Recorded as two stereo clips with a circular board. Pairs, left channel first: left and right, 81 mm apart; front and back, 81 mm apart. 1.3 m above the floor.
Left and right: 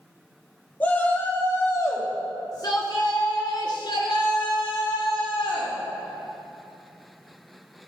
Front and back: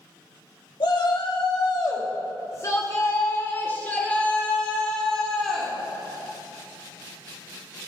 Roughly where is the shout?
Ahead.